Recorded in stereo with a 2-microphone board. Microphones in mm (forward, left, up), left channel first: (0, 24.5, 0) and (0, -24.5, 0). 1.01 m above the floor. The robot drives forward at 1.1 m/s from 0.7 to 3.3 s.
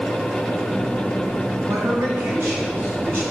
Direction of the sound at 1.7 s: 60° right (ahead or behind).